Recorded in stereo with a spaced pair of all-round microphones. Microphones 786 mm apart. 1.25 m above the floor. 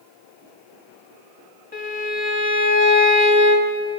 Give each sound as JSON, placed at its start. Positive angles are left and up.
{"t": 1.7, "sound": "a violin", "side_deg": 10, "distance_m": 0.8}